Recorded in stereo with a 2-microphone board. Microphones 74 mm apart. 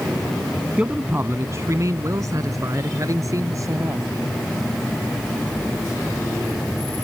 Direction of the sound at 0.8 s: 20° right (ahead or behind).